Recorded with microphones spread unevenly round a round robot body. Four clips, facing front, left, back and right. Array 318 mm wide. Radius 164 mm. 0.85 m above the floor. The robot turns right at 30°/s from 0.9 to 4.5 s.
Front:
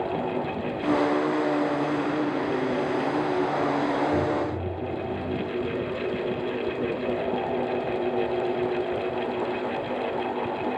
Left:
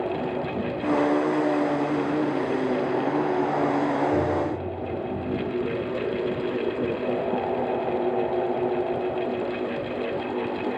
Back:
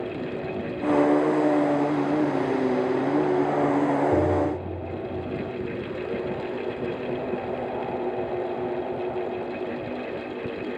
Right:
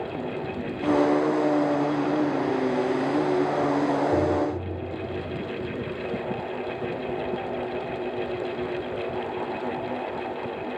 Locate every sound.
4.1 s tapping: 160° right, 1.2 m; by 4.5 s 145° right, 1.2 m